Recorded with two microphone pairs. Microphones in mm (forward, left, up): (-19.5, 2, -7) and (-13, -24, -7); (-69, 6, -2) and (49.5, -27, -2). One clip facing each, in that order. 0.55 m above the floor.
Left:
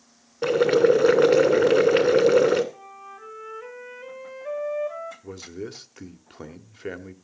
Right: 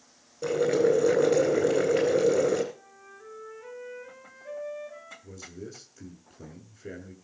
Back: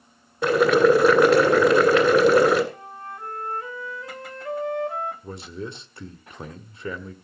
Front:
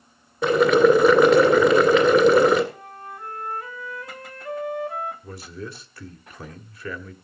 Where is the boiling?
75° left, 2 m.